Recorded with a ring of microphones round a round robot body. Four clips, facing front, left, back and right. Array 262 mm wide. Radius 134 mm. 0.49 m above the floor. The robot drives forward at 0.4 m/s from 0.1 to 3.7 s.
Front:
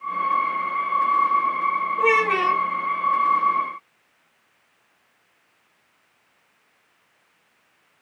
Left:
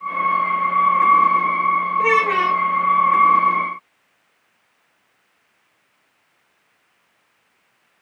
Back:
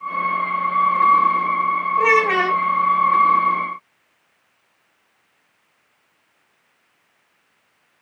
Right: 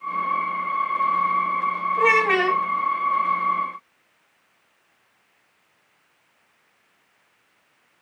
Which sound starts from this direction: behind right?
A child speaking, at 2.0 s.